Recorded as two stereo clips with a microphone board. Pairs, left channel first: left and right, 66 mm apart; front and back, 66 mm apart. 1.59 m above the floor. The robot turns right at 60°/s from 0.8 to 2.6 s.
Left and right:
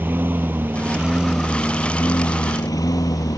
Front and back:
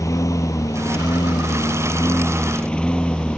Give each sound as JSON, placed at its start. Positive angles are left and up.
{"t": 0.0, "sound": "a lawn mower", "azimuth_deg": -35}